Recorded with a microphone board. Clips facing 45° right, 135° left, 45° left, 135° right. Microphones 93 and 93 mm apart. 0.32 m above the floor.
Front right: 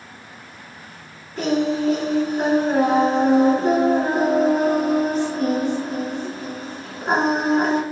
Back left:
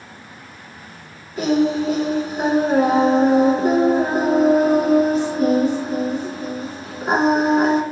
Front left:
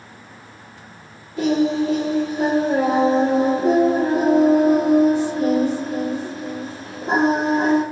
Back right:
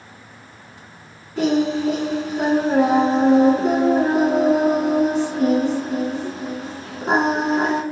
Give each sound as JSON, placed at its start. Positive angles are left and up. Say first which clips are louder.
{"t": 1.4, "sound": "singing", "louder": "back left 3 dB, even", "azimuth_deg": -140, "distance_m": 1.2}